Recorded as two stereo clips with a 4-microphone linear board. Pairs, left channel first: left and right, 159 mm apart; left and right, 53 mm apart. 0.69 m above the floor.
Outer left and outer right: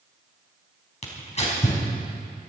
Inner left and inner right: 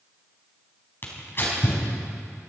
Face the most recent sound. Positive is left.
turn(degrees=45)  # may be behind; listen again after turning